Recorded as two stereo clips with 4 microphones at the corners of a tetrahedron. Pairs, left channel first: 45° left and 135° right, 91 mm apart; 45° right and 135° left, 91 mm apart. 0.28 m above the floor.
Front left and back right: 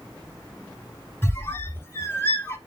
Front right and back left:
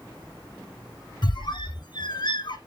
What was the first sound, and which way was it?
A squeak, 20° right.